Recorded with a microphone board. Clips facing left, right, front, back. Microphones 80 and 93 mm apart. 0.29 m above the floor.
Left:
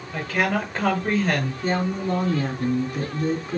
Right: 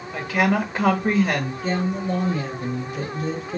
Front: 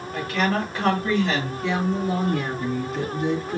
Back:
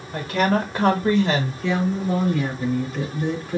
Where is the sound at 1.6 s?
90° left, 2.5 m.